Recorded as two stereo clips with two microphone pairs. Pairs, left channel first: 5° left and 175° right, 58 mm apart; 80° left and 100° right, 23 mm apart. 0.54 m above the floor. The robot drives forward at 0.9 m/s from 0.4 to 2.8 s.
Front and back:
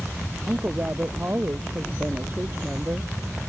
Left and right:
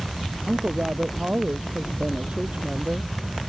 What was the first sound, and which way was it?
A woman speaking, 120° right.